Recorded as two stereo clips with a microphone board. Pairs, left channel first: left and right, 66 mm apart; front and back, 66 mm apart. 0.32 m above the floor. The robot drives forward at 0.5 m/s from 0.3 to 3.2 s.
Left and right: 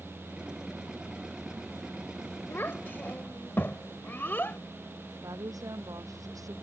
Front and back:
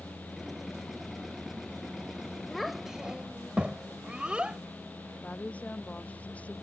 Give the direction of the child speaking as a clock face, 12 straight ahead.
9 o'clock.